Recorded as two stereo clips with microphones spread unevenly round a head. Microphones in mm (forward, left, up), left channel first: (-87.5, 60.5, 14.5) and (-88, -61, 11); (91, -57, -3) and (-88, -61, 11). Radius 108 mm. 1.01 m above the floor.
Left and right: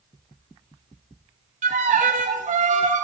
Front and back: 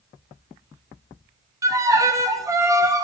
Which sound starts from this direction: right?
A violin, at 1.6 s.